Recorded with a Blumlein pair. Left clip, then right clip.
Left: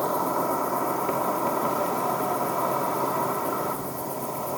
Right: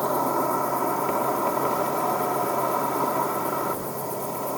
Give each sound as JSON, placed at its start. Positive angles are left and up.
{"t": 0.0, "sound": "an insect", "azimuth_deg": 0, "distance_m": 1.6}